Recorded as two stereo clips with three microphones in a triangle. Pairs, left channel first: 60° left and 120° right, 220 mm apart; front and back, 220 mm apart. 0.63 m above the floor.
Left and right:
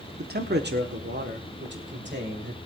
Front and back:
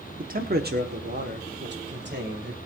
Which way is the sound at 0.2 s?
145° right.